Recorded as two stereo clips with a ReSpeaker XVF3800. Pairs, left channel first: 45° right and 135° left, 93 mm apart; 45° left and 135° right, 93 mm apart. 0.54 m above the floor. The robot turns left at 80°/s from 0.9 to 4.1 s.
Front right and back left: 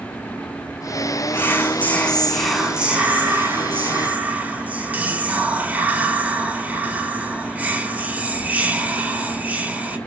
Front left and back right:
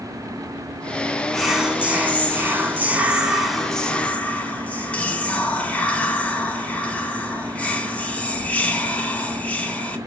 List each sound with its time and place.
1.3 s whispering: 45° right, 0.6 m; by 10.0 s 95° left, 0.6 m